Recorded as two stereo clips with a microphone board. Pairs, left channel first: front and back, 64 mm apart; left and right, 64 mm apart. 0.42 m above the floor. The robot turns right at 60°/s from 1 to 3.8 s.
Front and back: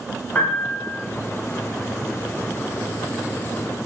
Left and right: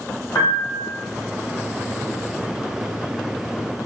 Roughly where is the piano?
Ahead left.